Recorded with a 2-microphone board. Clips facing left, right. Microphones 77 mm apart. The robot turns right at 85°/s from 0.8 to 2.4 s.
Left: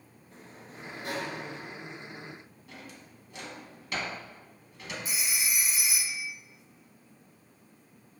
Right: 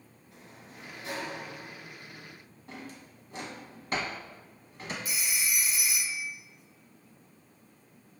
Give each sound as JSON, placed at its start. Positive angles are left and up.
{"t": 0.3, "sound": "a sliding door", "azimuth_deg": 40, "distance_m": 0.7}
{"t": 2.7, "sound": "a drawer", "side_deg": -40, "distance_m": 0.8}
{"t": 5.0, "sound": "a phone ringing", "side_deg": 30, "distance_m": 1.0}